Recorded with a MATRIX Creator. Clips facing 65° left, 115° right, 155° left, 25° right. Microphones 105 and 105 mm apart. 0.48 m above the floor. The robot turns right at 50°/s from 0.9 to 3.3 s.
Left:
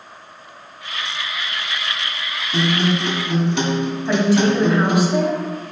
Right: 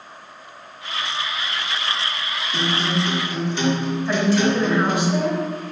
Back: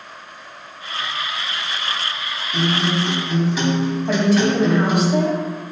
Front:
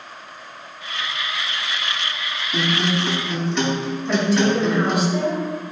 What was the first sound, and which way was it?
A guitar, 35° left.